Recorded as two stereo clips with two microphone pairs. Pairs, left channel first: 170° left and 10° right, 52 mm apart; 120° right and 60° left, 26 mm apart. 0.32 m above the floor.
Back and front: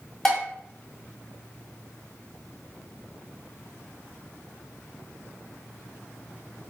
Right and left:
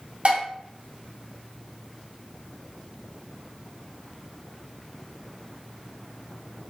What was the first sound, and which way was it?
Dishes clattering, 85° left.